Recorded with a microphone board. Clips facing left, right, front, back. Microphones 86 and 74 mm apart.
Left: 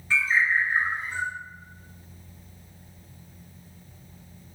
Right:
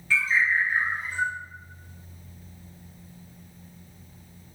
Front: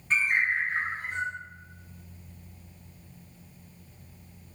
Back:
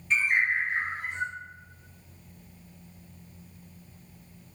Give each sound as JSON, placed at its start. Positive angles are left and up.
{"t": 0.1, "sound": "a bird", "azimuth_deg": 30, "distance_m": 1.8}